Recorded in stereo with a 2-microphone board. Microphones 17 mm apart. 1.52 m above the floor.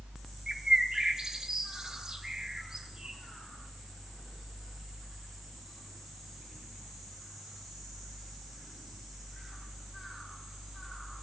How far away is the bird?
About 2.0 m.